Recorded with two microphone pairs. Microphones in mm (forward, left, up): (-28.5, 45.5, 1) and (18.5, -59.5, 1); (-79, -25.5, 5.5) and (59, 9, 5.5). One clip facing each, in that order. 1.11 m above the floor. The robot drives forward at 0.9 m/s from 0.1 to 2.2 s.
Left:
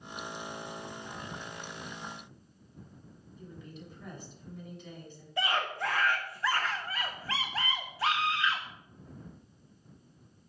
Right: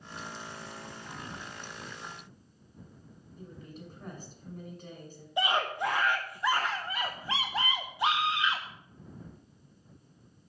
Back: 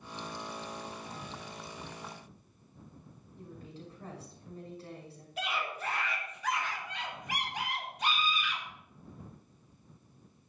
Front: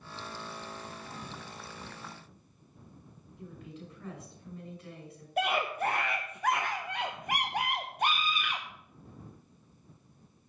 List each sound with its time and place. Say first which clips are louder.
3.4 s a woman speaking: right 1 dB, front 1 dB; 110° right, 6 m
5.4 s a scream: right 3 dB, front 7 dB; straight ahead, 0.8 m